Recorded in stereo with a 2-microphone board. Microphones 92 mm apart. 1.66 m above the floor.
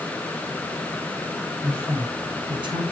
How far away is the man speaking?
About 3.5 m.